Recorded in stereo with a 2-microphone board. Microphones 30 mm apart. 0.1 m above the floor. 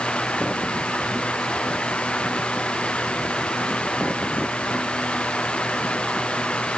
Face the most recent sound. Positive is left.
No sound to turn to.